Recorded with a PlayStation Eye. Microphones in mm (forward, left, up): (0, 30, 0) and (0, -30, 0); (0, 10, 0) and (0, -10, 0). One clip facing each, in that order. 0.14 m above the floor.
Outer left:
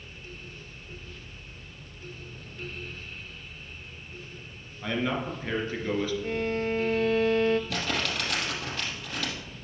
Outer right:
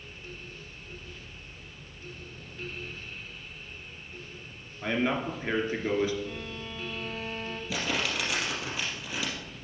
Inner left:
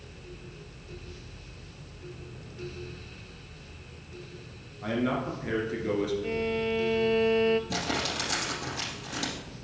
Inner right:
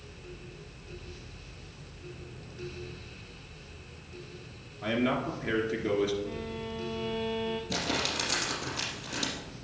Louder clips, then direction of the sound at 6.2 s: Outer left 10 dB, inner left 8 dB; 60° left (ahead or behind).